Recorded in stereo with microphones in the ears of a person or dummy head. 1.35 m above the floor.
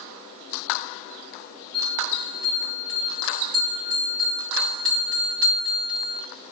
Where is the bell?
20° right (ahead or behind), 1.4 m.